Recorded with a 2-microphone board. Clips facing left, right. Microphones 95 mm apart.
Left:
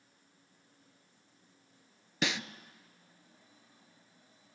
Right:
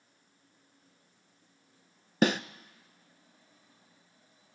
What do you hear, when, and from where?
2.2 s a snare drum: 45° right (ahead or behind), 0.5 m